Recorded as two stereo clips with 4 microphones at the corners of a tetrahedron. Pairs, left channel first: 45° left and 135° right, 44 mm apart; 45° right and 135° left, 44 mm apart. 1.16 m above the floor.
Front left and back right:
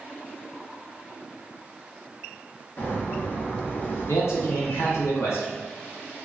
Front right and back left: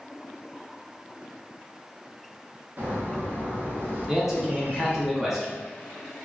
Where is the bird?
95° left, 0.6 m.